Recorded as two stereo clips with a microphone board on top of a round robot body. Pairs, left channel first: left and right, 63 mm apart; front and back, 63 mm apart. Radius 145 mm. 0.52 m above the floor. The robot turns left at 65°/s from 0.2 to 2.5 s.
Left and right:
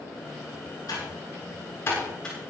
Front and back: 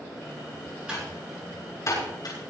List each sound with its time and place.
0.9 s typing on a keyboard: 105° left, 10 m; by 2.5 s straight ahead, 10 m